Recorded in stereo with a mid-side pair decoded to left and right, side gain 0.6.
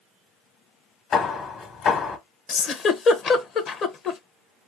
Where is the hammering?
55° left, 1.7 m.